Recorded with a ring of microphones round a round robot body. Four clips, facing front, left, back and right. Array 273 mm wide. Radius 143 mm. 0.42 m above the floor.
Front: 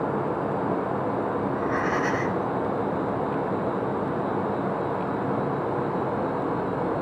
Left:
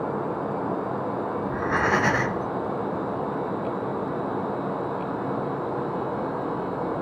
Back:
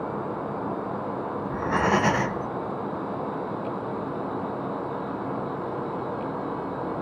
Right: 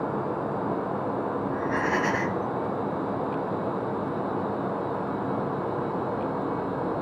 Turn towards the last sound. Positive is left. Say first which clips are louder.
# left 5 dB, back 1 dB
turn(degrees=150)